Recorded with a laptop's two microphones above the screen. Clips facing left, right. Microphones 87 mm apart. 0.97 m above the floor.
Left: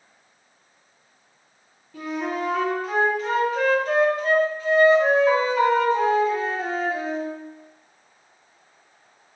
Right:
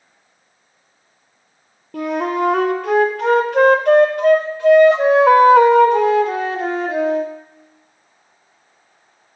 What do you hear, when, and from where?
1.9 s a flute: 60° right (ahead or behind), 0.5 m